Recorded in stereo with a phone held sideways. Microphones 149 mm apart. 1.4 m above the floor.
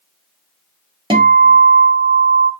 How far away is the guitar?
About 0.9 m.